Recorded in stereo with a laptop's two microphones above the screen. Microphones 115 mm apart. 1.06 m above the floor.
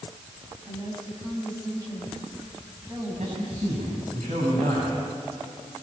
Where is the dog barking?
No dog barking in this recording.